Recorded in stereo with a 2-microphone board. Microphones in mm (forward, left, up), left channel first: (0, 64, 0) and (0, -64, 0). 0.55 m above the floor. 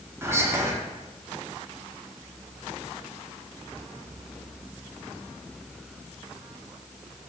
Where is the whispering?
20° right (ahead or behind), 0.7 m.